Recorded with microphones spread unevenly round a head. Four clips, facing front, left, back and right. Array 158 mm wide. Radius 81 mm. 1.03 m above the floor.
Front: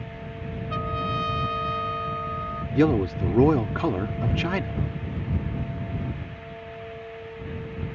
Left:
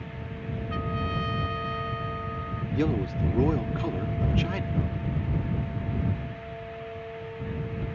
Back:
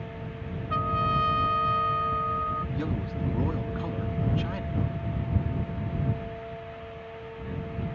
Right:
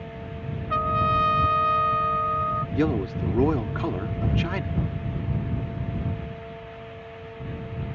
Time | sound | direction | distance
0.7 | a trumpet | 105° right | ?
2.8 | a man speaking | 10° right | ?